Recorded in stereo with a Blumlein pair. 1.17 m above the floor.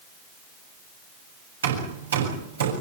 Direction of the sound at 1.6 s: 65° right.